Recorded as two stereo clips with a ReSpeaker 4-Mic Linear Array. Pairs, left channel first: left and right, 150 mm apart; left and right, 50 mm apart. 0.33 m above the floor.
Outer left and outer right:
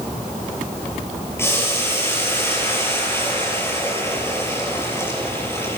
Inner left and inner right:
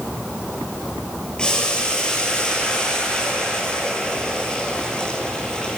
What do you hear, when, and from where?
1.4 s boiling: 15° left (ahead or behind), 6 m